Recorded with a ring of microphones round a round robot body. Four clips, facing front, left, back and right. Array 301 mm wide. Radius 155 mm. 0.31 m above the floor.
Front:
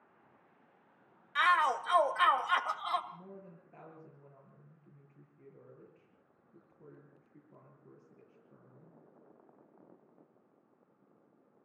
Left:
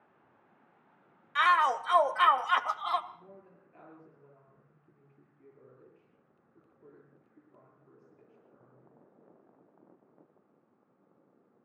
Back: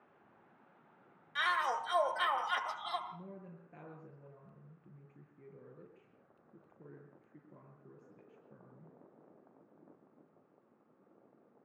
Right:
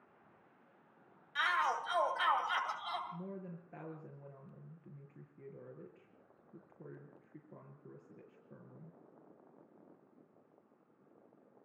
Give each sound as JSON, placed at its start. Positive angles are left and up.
{"t": 1.4, "sound": "a shout", "azimuth_deg": 70, "distance_m": 2.0}
{"t": 3.1, "sound": "a woman speaking", "azimuth_deg": -110, "distance_m": 6.0}